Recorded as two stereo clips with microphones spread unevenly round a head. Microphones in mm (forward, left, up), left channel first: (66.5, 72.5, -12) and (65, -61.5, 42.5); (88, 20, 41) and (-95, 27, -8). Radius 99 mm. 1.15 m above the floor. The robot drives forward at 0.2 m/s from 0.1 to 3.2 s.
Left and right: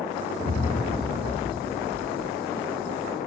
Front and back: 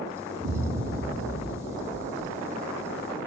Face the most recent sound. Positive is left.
turn(degrees=-170)